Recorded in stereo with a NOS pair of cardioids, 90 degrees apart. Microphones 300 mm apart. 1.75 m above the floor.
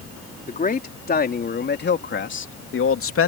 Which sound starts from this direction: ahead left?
A man speaking, at 0.5 s.